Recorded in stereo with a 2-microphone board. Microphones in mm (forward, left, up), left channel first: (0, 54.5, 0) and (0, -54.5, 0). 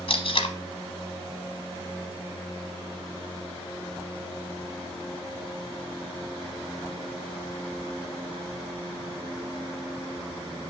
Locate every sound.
0.1 s tape being pulled: 65° left (ahead or behind), 1.0 m